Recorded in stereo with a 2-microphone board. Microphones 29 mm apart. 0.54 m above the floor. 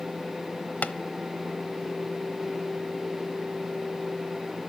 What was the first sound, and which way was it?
Tapping, 65° left (ahead or behind).